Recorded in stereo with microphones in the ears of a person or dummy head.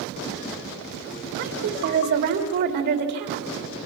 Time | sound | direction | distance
1.4 | a woman speaking | 55° right (ahead or behind) | 3 m